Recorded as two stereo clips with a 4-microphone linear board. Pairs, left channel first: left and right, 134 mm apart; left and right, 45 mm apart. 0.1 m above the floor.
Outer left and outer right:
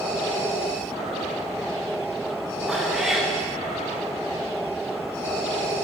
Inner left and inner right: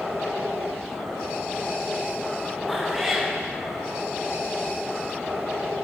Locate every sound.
2.7 s a cat meowing: 5° right (ahead or behind), 3.5 m